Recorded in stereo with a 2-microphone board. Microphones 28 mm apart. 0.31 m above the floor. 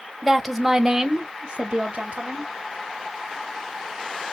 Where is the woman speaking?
Centre (ahead or behind), 1.2 m; by 2.5 s 45° right (ahead or behind), 1.4 m.